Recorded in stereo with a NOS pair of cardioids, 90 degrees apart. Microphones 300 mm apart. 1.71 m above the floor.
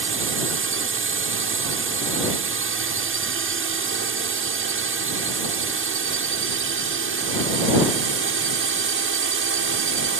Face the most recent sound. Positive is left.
turn(degrees=-45)